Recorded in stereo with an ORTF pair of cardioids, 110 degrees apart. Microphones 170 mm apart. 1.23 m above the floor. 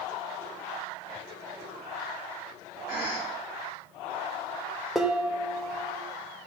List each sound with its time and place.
2.9 s a cough: 70° left, 4 m
5.0 s dishes clattering: 5° right, 0.9 m